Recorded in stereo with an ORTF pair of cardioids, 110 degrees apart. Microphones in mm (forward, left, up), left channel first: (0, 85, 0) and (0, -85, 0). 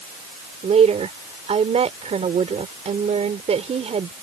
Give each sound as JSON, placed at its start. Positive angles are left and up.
{"t": 0.6, "sound": "a woman speaking", "azimuth_deg": -35}